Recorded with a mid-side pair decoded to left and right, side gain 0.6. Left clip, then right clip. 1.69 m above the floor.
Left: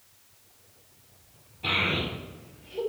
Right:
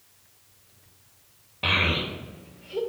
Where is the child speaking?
65° right, 2.5 m; by 2.8 s 50° right, 3 m.